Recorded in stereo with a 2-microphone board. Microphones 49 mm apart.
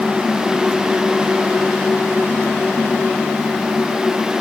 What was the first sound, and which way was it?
Only background noise.